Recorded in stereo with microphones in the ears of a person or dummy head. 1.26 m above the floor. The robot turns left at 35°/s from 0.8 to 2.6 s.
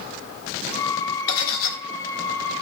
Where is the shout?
I don't hear a shout.